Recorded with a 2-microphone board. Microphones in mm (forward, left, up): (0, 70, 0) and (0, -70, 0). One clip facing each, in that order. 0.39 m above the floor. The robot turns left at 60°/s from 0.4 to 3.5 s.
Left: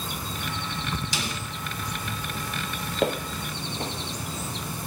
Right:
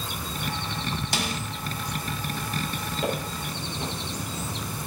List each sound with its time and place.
1.1 s a snare drum: 60° right (ahead or behind), 1.4 m; by 1.4 s 70° right (ahead or behind), 1.4 m
3.0 s footsteps: 85° left, 4 m; by 3.9 s 65° left (ahead or behind), 4 m